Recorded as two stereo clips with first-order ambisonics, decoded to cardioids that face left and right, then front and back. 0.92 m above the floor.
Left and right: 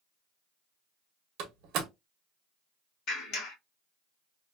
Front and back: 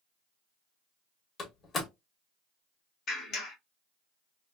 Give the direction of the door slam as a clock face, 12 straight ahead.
2 o'clock.